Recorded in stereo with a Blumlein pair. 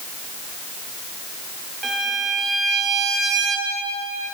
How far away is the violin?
About 1.6 m.